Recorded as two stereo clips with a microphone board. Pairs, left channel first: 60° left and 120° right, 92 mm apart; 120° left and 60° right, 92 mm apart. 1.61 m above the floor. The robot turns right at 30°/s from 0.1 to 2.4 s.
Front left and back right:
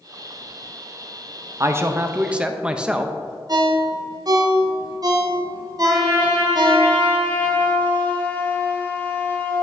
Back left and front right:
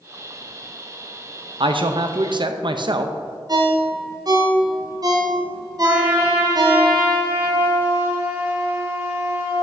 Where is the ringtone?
90° right, 0.8 m.